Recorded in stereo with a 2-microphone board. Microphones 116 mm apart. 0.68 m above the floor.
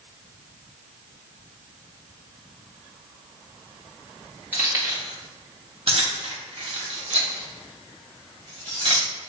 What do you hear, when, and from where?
4.5 s keys jangling: 20° right (ahead or behind), 1.4 m; by 9.3 s 45° right (ahead or behind), 3 m